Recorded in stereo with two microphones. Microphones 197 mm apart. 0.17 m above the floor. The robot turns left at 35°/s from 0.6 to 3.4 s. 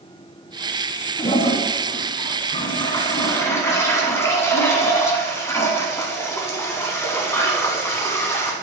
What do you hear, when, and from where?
1.2 s a toilet flushing: 105° left, 1.5 m; by 8.5 s 30° left, 1.5 m